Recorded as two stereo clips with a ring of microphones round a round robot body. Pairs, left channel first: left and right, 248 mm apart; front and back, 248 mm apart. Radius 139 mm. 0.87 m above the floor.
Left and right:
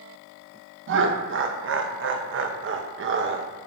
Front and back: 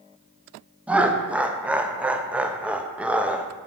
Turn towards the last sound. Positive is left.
turn(degrees=-95)